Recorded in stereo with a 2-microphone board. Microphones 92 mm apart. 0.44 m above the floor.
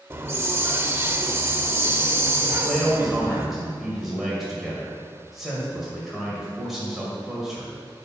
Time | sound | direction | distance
0.1 | a hiss | 30° right (ahead or behind) | 0.6 m
2.5 | a man speaking | 5° right (ahead or behind) | 2 m